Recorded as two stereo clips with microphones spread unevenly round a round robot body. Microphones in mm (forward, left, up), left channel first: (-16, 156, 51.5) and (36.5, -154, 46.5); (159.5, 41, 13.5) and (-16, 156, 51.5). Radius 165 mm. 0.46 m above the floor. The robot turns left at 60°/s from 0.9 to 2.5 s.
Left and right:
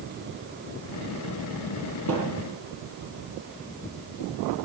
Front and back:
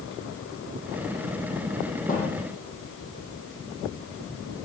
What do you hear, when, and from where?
2.1 s a thud: 125° right, 7 m; by 2.4 s 145° right, 7 m